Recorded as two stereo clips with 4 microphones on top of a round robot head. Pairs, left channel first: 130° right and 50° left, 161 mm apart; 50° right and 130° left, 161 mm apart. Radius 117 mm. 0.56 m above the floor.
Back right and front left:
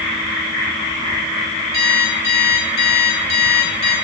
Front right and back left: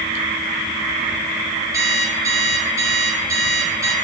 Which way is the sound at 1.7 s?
155° right.